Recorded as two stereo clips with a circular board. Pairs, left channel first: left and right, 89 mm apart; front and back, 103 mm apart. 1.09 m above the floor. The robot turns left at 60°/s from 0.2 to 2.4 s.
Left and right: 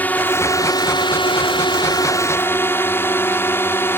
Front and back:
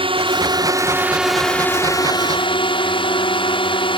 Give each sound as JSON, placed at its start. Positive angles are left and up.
{"t": 0.0, "sound": "a drone", "azimuth_deg": 160}